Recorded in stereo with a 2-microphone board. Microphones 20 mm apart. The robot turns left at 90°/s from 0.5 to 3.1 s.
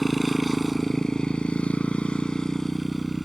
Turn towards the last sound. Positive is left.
turn(degrees=-10)  # may be behind; listen again after turning